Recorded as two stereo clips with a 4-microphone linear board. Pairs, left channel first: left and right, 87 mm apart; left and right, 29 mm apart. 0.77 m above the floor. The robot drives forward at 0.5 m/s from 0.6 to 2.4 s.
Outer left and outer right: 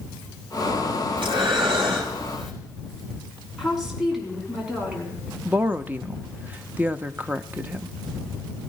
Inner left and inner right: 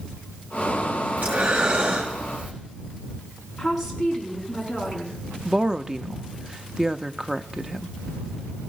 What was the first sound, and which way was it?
Breathing, 80° right.